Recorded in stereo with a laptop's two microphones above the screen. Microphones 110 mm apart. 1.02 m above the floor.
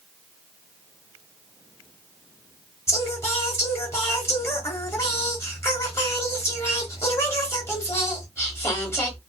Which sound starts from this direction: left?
Singing, at 2.9 s.